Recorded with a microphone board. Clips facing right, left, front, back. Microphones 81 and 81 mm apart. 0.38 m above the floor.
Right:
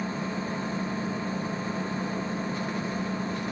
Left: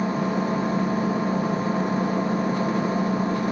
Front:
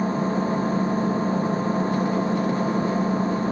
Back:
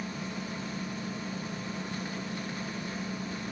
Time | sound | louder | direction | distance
0.0 | an engine running | left 8 dB, front 14 dB | 35° left | ?